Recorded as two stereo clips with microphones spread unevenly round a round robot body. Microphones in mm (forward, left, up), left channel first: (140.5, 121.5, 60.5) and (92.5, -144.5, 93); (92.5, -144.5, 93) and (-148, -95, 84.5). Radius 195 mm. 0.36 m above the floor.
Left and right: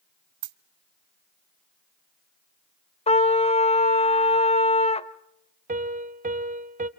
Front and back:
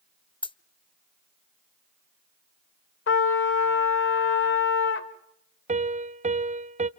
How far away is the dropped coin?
About 0.8 m.